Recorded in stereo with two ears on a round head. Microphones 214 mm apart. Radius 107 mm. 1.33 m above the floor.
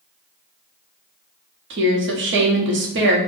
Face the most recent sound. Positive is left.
turn(degrees=-50)  # may be behind; listen again after turning